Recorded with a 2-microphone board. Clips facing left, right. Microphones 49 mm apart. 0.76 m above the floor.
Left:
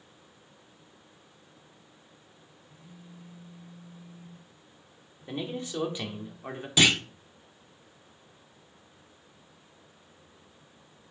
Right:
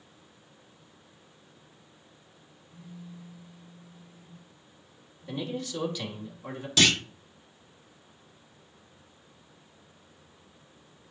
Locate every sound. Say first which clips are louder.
2.7 s a phone buzzing: right 6 dB; 30° left (ahead or behind), 3 m
5.3 s a man speaking: right 1 dB; 25° left (ahead or behind), 2.0 m
6.8 s a clunk: left 1 dB; 15° left (ahead or behind), 0.6 m